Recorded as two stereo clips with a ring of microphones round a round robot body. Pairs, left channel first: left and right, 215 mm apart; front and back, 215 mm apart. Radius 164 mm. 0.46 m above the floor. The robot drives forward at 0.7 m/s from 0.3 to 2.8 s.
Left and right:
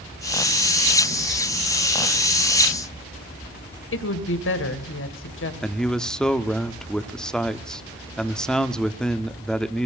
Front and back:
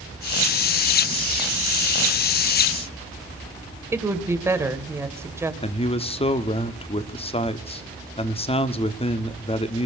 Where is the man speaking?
5° left, 1.2 m.